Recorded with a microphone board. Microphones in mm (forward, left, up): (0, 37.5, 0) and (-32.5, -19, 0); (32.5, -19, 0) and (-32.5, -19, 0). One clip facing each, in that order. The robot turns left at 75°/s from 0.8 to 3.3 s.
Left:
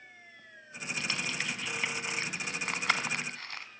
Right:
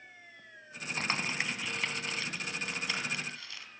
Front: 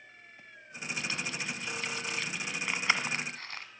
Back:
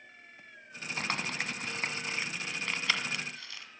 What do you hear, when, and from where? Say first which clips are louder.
1.0 s crumpling: right 2 dB, back 3 dB; 155° right, 2.5 m; by 3.7 s 30° left, 2.5 m